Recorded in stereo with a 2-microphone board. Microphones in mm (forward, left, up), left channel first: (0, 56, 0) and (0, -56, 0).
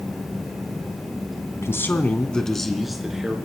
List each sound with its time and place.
1.6 s a man speaking: 25° left (ahead or behind), 1.3 m; by 3.4 s 10° right (ahead or behind), 2.5 m